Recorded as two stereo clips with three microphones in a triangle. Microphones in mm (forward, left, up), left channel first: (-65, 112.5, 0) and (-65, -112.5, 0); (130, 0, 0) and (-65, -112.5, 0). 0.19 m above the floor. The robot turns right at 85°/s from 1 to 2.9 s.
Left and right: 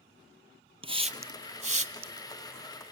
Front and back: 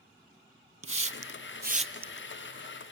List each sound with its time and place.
0.8 s a hiss: 155° right, 0.7 m; by 2.3 s 50° right, 0.7 m